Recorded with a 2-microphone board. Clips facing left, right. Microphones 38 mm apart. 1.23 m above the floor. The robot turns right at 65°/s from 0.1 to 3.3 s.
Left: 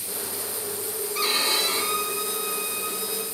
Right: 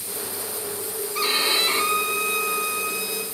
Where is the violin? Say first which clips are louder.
Right 2 dB; 175° right, 3.5 m; by 3.2 s 35° right, 3.5 m.